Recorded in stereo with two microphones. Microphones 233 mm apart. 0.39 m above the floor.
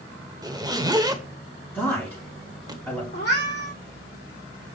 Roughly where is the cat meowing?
Left.